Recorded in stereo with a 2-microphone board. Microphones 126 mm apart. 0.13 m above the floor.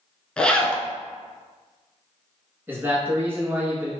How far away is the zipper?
About 0.5 m.